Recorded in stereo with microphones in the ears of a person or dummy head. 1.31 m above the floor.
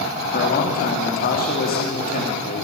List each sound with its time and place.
0.3 s a man speaking: 50° left (ahead or behind), 2.5 m